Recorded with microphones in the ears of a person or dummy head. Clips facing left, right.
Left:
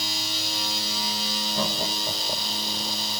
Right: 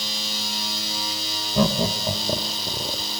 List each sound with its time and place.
1.6 s laughter: 55° right (ahead or behind); by 3.0 s 50° right (ahead or behind)